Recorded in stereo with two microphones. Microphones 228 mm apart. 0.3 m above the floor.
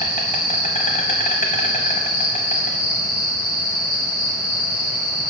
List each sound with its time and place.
0.0 s an insect: 35° left (ahead or behind), 0.8 m